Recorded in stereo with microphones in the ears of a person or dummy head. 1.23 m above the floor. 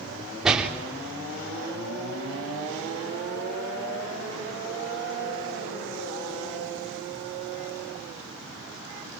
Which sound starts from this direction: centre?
A door slam, at 0.4 s.